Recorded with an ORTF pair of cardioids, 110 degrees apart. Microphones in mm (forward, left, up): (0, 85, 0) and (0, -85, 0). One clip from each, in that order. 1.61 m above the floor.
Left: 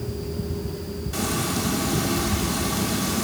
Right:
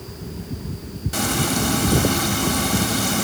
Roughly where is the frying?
Ahead right.